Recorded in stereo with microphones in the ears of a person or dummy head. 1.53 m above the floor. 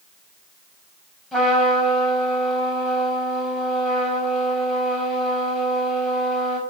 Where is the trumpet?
Centre (ahead or behind), 4 m.